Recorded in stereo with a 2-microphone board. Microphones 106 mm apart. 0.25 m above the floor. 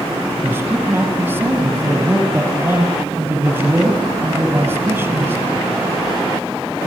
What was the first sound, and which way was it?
A man speaking, 15° right (ahead or behind).